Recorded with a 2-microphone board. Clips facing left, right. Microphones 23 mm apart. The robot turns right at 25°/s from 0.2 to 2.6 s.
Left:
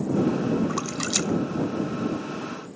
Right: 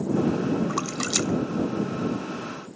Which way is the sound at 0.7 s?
15° right (ahead or behind).